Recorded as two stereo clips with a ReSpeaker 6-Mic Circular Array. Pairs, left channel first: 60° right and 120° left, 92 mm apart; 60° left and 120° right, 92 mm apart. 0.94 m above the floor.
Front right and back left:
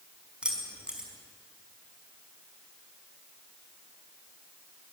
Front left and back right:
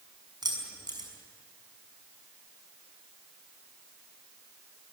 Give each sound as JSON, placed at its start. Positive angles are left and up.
{"t": 0.4, "sound": "keys jangling", "azimuth_deg": -160, "distance_m": 5.0}